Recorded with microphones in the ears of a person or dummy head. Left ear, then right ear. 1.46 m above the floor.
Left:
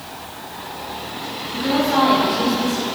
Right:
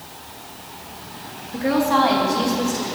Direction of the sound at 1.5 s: 35° right (ahead or behind).